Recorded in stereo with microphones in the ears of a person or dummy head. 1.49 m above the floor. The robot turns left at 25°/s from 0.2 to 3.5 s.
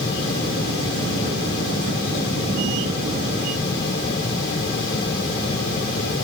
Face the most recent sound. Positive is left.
No sound to turn to.